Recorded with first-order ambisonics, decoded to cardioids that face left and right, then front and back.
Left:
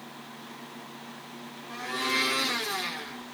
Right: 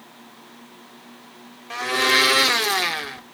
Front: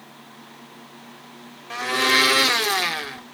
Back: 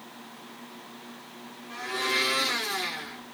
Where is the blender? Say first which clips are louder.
Right 10 dB, front 9 dB; 45° right, 0.5 m.